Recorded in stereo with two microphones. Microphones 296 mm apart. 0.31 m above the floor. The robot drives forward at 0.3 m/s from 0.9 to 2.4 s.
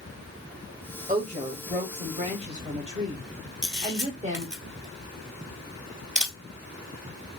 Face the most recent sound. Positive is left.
turn(degrees=-10)  # may be behind; listen again after turning